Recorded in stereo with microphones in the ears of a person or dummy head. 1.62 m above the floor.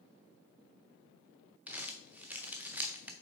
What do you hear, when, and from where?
1.7 s crumpling: 5° right (ahead or behind), 0.6 m